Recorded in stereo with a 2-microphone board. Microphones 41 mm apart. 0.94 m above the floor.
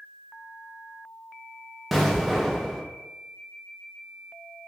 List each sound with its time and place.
1.9 s an explosion: centre (ahead or behind), 0.7 m